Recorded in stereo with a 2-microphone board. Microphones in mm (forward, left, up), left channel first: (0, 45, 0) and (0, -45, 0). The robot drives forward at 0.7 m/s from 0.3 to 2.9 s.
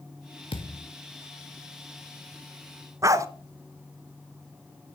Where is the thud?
70° left (ahead or behind), 1.4 m; by 0.9 s 60° left (ahead or behind), 1.5 m.